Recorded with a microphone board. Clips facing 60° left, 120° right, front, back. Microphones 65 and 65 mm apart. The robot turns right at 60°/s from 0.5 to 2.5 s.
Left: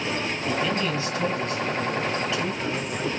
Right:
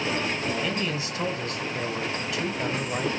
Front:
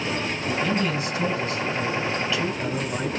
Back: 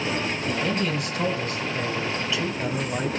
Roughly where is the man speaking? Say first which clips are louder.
Left 3 dB, front 3 dB; behind left.